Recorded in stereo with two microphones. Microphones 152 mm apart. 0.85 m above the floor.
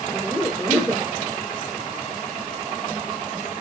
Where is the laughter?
5° right (ahead or behind), 2 m.